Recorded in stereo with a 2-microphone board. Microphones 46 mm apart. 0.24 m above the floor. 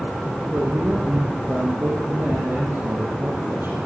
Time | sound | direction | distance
0.5 | a man speaking | 60° right (ahead or behind) | 7.5 m